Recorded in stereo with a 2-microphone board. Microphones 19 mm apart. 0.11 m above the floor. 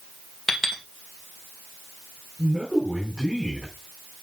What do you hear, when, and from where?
0.5 s a clink: 20° left (ahead or behind), 2.5 m
2.4 s a man speaking: 30° left (ahead or behind), 4 m